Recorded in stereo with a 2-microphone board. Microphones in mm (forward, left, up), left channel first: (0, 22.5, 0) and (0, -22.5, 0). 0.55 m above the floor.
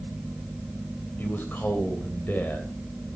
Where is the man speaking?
45° left (ahead or behind), 2.5 m.